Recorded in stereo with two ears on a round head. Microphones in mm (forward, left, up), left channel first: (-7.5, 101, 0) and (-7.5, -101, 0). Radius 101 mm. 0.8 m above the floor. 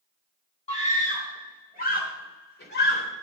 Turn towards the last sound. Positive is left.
turn(degrees=55)  # may be behind; listen again after turning